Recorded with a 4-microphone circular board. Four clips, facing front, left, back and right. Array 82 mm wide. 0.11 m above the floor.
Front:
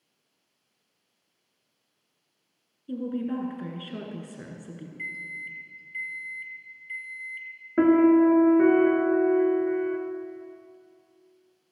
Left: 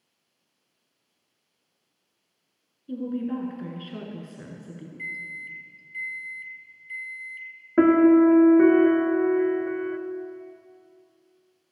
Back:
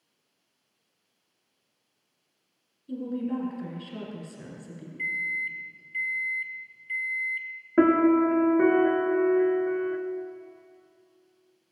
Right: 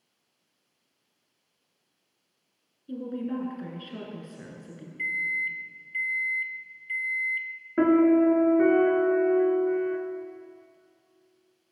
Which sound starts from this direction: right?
A microwave, at 5.0 s.